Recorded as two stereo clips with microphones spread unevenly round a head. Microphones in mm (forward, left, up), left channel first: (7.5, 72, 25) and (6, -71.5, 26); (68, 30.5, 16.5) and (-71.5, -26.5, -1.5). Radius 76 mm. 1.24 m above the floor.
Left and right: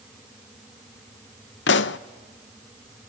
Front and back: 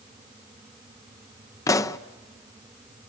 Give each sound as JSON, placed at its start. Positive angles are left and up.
{"t": 1.7, "sound": "a pop", "azimuth_deg": 90, "distance_m": 0.6}